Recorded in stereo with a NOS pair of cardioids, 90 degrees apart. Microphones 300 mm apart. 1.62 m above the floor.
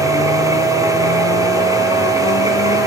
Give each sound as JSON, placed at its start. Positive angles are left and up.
{"t": 0.0, "sound": "a machine running", "azimuth_deg": -10, "distance_m": 1.1}